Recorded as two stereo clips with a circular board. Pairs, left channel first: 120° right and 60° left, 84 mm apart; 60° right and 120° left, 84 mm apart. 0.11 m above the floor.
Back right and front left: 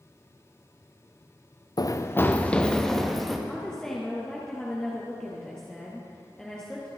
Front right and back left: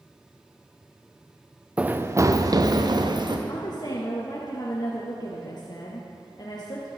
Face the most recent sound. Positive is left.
turn(degrees=-40)